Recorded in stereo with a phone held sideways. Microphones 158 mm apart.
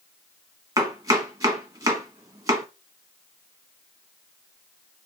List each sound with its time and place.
0.8 s chopping: 20° right (ahead or behind), 1.3 m